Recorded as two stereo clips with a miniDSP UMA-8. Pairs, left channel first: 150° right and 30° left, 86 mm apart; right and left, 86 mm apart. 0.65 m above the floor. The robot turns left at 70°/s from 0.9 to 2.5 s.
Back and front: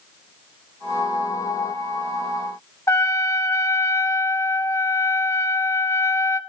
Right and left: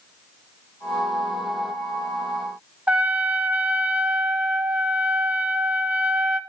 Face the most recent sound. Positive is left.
turn(degrees=160)